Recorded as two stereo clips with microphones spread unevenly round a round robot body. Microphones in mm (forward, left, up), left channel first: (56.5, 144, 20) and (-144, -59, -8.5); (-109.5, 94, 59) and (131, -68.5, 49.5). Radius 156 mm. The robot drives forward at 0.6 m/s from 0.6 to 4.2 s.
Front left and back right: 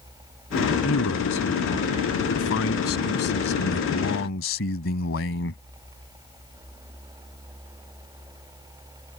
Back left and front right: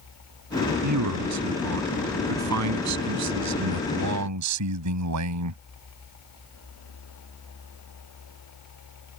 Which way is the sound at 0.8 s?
5° right.